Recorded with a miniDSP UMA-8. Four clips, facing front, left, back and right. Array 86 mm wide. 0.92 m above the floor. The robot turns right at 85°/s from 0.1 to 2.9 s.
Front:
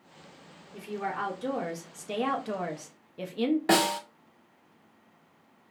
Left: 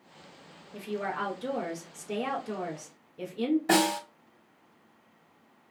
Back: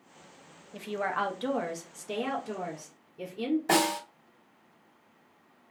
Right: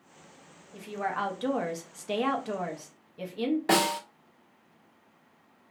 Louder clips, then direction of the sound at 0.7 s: Right 1 dB, back 2 dB; 165° left.